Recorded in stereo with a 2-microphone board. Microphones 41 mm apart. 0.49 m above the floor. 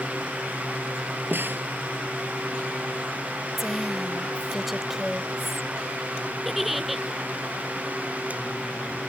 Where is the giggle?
5° right (ahead or behind).